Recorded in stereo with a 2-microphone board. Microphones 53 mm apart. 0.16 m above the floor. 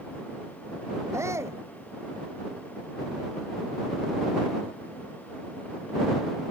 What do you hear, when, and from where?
1.1 s a shout: 65° right (ahead or behind)